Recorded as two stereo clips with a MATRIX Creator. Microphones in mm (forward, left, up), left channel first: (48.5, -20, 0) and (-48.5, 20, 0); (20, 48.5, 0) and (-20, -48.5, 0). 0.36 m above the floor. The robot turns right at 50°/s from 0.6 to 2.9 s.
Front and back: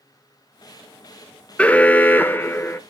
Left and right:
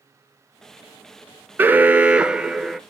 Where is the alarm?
85° right, 0.5 m; by 2.8 s 20° right, 0.5 m.